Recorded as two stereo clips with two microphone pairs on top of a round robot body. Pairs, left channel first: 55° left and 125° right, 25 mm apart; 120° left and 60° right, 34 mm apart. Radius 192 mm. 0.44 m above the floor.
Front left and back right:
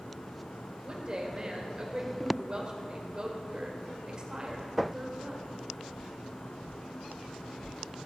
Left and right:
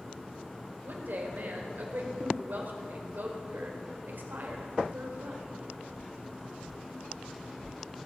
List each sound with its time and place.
0.8 s a woman speaking: 65° right, 2 m